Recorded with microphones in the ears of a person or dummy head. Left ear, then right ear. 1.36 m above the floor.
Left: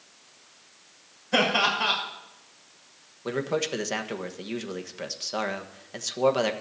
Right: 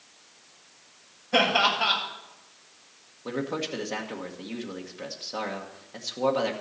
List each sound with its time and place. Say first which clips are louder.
1.3 s laughter: right 1 dB; 70° left (ahead or behind), 6.5 m
3.2 s a man speaking: left 3 dB; 85° left, 1.4 m